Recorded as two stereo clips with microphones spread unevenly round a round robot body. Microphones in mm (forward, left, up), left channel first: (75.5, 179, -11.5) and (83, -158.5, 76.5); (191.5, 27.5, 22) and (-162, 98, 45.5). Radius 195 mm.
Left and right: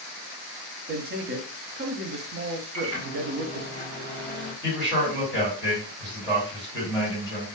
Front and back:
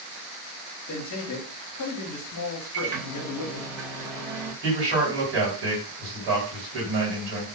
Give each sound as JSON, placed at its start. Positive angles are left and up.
{"t": 0.9, "sound": "a man speaking", "azimuth_deg": -20, "distance_m": 0.7}
{"t": 2.7, "sound": "a microwave", "azimuth_deg": 170, "distance_m": 1.1}
{"t": 4.6, "sound": "a man speaking", "azimuth_deg": 160, "distance_m": 1.7}